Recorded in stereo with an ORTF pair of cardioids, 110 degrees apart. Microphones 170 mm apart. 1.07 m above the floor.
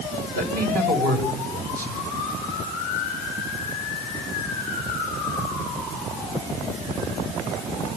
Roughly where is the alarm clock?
No alarm clock in this recording.